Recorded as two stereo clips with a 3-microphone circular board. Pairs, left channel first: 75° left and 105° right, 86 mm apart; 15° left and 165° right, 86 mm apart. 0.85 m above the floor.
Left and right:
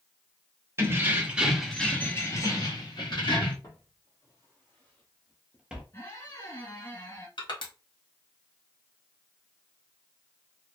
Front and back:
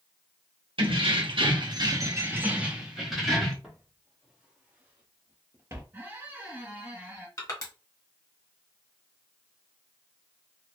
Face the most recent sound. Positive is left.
turn(degrees=60)